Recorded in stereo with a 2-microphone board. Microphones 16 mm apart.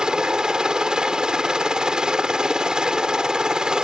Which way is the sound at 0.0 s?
65° right (ahead or behind).